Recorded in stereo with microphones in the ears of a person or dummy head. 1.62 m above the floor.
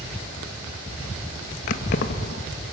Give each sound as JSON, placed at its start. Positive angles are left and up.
{"t": 1.7, "sound": "keys jangling", "side_deg": 45, "distance_m": 1.2}